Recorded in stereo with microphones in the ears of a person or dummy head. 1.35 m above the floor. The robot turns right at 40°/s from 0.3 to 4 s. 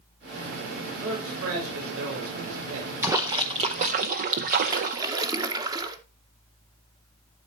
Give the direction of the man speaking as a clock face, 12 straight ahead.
5 o'clock.